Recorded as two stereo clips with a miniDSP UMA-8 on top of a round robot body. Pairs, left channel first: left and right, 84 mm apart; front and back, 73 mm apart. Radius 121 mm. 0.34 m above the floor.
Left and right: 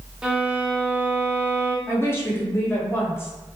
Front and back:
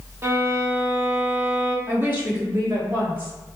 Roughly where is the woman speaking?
Behind left.